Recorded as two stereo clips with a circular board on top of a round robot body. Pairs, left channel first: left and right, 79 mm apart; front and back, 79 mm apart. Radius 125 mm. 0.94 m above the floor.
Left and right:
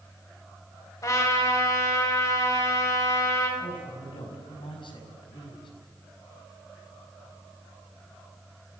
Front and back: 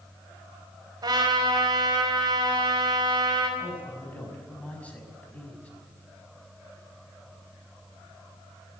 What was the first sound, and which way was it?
A trumpet, 140° left.